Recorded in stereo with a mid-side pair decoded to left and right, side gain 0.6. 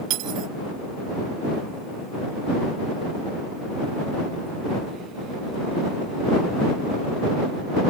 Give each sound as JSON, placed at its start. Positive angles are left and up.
{"t": 0.1, "sound": "cutlery clinking", "azimuth_deg": -70}